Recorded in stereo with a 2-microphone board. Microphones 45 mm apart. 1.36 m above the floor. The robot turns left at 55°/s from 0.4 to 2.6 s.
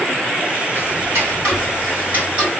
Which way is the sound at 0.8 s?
65° right.